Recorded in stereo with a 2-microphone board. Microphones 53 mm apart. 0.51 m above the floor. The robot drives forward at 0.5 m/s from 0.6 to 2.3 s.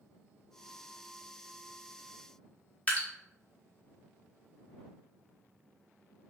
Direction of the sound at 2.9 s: 25° left (ahead or behind).